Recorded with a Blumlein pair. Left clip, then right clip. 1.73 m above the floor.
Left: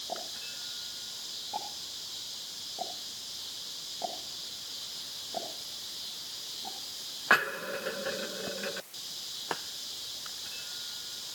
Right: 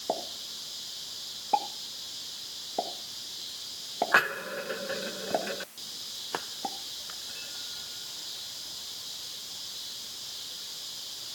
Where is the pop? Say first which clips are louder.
Right 4 dB; 35° right, 2.5 m.